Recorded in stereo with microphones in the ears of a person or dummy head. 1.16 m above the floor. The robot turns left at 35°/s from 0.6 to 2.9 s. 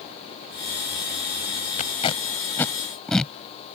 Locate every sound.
1.8 s tape being pulled: 40° left (ahead or behind); by 3.3 s 5° left (ahead or behind)